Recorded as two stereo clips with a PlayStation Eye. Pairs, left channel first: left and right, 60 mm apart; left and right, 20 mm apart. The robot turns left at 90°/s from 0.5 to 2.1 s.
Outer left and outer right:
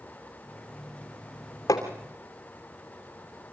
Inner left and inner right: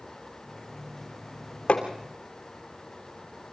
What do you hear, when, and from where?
1.7 s hammering: 80° left, 3 m